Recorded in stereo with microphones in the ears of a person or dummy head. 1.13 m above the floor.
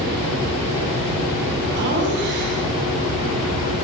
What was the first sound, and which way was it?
Laughter, 50° right (ahead or behind).